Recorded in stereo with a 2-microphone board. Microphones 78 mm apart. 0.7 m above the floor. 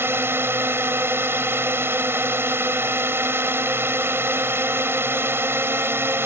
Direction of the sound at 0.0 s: 30° right (ahead or behind).